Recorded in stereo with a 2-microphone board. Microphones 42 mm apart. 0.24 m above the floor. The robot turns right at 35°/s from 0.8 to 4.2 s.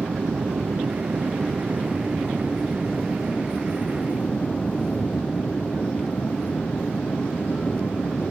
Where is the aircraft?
70° right (ahead or behind); by 8.3 s 45° left (ahead or behind).